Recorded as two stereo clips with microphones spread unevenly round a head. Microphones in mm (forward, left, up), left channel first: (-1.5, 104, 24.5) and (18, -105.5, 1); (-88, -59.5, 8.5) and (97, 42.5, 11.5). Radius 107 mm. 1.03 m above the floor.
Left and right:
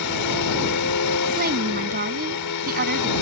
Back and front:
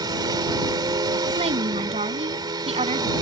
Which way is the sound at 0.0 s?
100° left.